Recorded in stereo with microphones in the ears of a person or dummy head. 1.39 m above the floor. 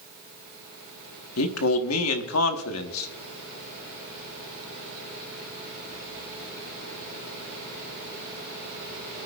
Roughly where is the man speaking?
Left.